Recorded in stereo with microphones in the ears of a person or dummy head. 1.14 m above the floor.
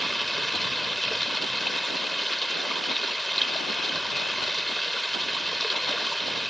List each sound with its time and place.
0.0 s running water: centre (ahead or behind)